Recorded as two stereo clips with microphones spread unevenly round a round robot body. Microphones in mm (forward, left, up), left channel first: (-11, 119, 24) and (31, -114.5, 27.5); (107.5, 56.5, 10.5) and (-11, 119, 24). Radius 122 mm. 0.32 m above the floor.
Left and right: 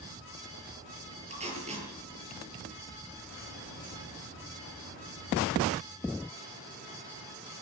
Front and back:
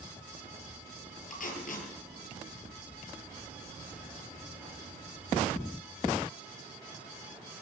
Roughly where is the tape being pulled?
Ahead.